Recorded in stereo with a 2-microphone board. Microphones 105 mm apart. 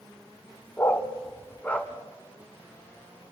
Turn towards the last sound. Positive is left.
turn(degrees=15)  # may be behind; listen again after turning